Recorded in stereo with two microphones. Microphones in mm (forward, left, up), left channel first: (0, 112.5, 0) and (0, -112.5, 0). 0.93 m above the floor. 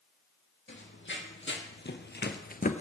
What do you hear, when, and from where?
0.7 s running footsteps: 55° left (ahead or behind), 2.5 m; by 2.8 s 30° left (ahead or behind), 1.0 m